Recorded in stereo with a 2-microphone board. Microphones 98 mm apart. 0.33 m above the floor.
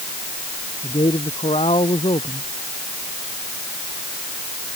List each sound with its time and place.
0.8 s a man speaking: 85° left